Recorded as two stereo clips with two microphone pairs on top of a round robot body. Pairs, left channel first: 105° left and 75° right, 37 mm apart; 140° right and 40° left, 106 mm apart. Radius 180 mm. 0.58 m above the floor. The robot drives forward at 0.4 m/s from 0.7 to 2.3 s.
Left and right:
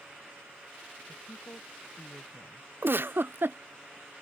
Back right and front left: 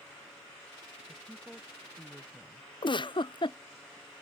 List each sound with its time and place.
1.1 s a woman speaking: 130° left; by 2.7 s 135° left
2.8 s a giggle: 100° right